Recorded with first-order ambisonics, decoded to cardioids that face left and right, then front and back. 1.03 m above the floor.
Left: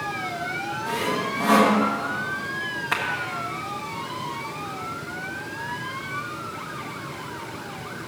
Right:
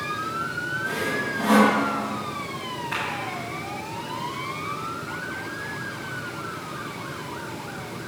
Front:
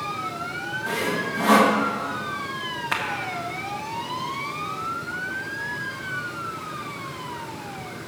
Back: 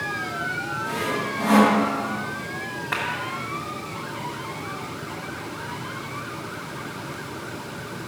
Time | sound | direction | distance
0.9 | sawing | 5° left | 1.0 m
2.9 | a clap | 30° left | 1.5 m